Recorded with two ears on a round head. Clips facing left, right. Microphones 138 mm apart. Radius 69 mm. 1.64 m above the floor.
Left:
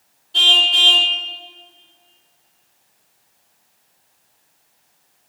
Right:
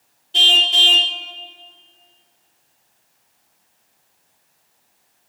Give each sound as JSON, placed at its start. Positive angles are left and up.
{"t": 0.3, "sound": "a car horn", "side_deg": -25, "distance_m": 2.0}